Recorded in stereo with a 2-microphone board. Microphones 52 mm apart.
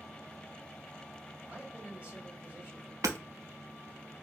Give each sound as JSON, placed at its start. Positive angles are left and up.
{"t": 1.5, "sound": "a man speaking", "side_deg": -15, "distance_m": 1.5}
{"t": 3.0, "sound": "hammering", "side_deg": -80, "distance_m": 0.5}